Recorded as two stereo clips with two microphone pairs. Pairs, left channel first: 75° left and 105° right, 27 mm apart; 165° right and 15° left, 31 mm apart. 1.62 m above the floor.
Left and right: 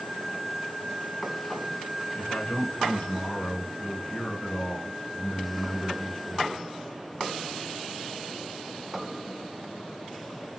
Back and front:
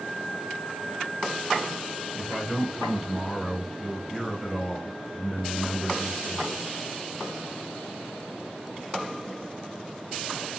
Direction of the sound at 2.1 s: 105° left.